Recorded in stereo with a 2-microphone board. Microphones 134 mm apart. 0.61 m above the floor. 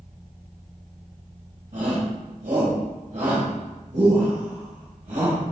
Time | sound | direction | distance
1.7 | a shout | 70° right (ahead or behind) | 2.5 m